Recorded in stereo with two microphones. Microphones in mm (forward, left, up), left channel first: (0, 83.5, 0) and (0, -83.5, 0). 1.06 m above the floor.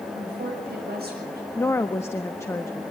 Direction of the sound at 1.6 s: 15° left (ahead or behind).